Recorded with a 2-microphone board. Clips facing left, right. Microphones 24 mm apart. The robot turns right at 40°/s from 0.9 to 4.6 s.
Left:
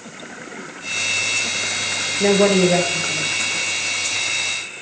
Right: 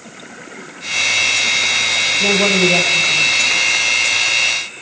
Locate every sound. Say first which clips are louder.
2.2 s a woman speaking: left 1 dB; 100° left, 3 m; by 3.6 s 155° left, 3 m